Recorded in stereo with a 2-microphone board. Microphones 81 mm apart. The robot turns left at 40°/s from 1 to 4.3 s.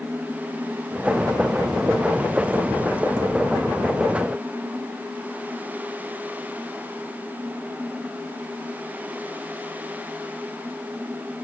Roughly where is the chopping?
I don't hear chopping.